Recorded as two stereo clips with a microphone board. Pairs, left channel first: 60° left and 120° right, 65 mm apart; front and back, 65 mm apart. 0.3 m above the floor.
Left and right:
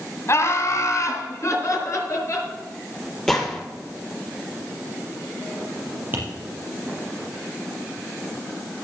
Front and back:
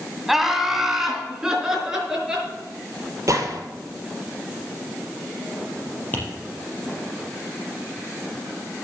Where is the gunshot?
145° left, 2.5 m.